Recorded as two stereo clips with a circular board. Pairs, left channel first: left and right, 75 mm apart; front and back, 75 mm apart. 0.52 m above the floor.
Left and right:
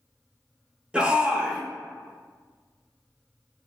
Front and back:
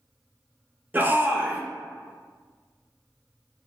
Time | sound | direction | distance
0.9 | a shout | 150° right | 0.7 m